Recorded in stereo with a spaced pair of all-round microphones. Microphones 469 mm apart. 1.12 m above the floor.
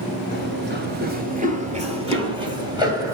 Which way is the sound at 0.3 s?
25° right (ahead or behind).